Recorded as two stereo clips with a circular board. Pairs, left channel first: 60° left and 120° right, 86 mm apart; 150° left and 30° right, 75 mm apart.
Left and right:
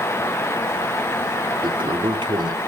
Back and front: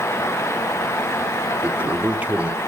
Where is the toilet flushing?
100° right.